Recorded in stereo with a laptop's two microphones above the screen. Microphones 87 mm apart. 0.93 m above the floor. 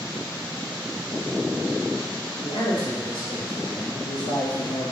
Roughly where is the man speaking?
Left.